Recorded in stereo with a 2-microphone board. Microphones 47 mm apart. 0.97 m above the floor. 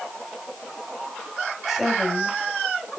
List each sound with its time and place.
1.7 s a woman speaking: 5° right (ahead or behind), 6 m